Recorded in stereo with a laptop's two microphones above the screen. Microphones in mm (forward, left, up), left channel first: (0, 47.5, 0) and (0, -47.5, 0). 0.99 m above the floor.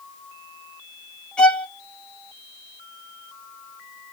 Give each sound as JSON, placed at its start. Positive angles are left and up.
{"t": 1.4, "sound": "a violin", "side_deg": 10, "distance_m": 1.1}